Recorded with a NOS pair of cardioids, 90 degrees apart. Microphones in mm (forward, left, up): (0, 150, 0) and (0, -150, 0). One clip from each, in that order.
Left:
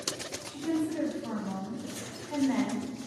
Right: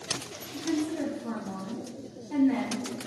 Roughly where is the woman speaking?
Ahead.